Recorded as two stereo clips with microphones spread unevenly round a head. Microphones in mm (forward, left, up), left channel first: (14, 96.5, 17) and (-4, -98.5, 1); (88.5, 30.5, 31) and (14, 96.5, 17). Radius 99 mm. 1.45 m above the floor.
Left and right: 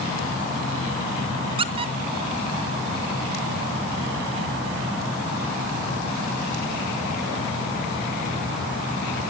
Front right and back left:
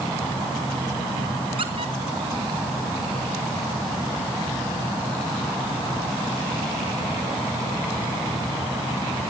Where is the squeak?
160° right, 0.9 m.